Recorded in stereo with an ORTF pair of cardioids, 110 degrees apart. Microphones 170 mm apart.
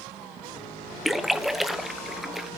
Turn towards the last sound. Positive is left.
turn(degrees=0)